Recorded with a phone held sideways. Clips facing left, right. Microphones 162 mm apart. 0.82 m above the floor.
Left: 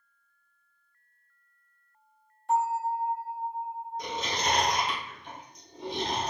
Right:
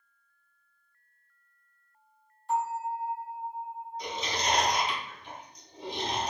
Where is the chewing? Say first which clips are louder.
Left 1 dB; 60° left (ahead or behind), 1.2 m.